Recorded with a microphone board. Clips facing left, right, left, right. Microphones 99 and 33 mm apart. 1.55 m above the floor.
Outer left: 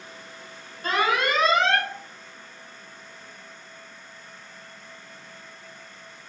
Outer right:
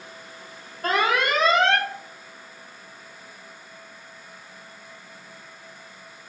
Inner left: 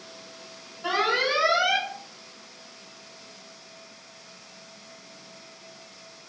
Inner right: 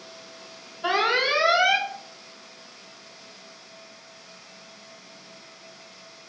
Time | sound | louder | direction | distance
0.8 | an alarm | outer right 1 dB, inner right 2 dB | 60° right (ahead or behind) | 1.1 m